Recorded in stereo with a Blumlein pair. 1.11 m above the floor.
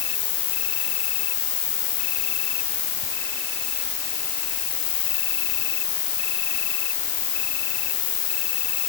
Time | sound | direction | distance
0.0 | an insect | 50° left | ?